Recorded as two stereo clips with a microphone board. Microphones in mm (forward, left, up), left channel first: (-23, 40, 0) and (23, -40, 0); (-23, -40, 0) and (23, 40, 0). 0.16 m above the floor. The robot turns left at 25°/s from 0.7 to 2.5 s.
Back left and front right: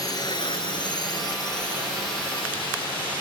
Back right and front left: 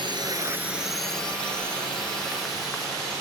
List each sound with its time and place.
0.0 s a drone: 80° left; by 3.2 s 155° left